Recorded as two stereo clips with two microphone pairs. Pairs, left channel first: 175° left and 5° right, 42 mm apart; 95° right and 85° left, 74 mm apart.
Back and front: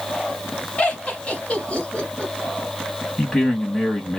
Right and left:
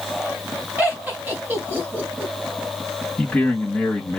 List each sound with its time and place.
0.8 s laughter: 130° left, 1.6 m
3.2 s a man speaking: 135° right, 1.6 m